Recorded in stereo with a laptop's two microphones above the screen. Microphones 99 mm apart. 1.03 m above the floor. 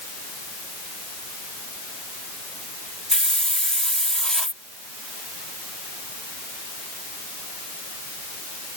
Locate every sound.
3.1 s a hiss: 10° left (ahead or behind)